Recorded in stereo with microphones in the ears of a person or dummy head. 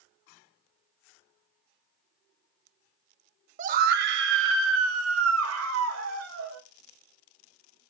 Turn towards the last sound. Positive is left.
turn(degrees=-85)